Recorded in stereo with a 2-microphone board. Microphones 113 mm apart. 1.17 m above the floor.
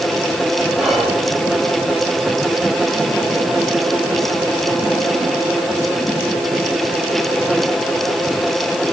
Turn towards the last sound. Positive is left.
turn(degrees=-10)  # may be behind; listen again after turning